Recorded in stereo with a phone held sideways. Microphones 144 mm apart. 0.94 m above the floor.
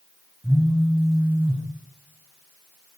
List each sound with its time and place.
0.4 s a phone buzzing: 15° right (ahead or behind), 3 m